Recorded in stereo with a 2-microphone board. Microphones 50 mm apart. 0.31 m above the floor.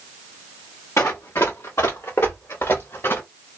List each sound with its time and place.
1.0 s running footsteps: 70° left (ahead or behind), 1.3 m; by 3.2 s 55° left (ahead or behind), 1.6 m